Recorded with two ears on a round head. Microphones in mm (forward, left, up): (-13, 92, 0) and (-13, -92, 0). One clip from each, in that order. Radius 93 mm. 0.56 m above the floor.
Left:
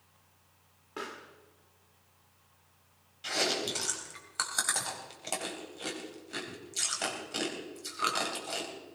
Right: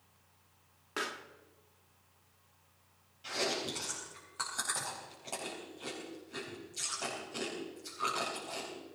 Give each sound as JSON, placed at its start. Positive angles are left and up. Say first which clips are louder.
{"t": 1.0, "sound": "a pop", "louder": "right 3 dB", "side_deg": -50, "distance_m": 1.2}
{"t": 3.2, "sound": "chewing", "louder": "left 4 dB", "side_deg": 55, "distance_m": 3.5}